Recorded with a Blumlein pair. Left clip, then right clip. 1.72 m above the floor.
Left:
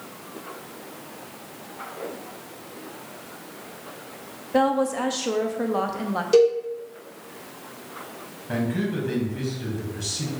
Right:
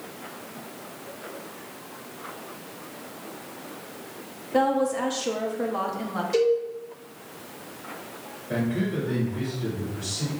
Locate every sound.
4.5 s a woman speaking: 10° left, 0.7 m
6.3 s a cowbell: 65° left, 1.7 m
8.5 s a man speaking: 60° left, 2 m